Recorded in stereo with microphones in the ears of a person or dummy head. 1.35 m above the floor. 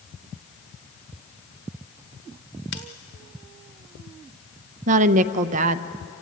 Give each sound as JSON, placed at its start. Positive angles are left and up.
{"t": 2.7, "sound": "scissors", "side_deg": 55, "distance_m": 1.6}
{"t": 4.9, "sound": "a woman speaking", "side_deg": -40, "distance_m": 0.8}